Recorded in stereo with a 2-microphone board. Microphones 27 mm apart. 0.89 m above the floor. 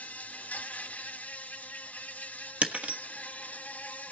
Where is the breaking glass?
45° right (ahead or behind), 1.2 m.